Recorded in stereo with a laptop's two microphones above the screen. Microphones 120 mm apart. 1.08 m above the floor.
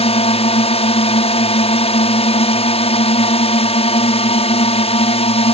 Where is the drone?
55° left (ahead or behind).